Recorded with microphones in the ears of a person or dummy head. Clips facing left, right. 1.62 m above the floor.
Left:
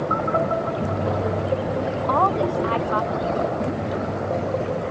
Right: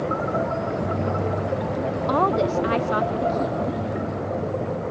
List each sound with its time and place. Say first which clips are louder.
2.1 s a woman speaking: right 1 dB; 25° right (ahead or behind)